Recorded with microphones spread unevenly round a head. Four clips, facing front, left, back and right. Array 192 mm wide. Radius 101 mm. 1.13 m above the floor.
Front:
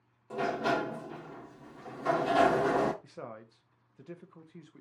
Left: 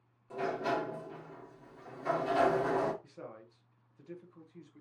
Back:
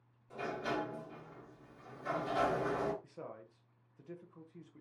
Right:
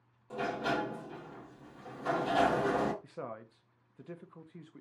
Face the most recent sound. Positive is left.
turn(degrees=-55)